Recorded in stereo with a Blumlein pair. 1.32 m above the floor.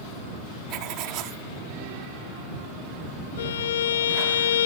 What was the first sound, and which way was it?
Writing, 40° right.